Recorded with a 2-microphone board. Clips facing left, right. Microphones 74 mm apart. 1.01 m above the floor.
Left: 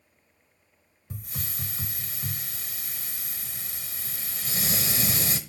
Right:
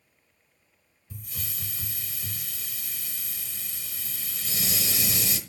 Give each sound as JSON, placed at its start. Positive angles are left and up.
{"t": 1.1, "sound": "a hiss", "side_deg": 40, "distance_m": 1.0}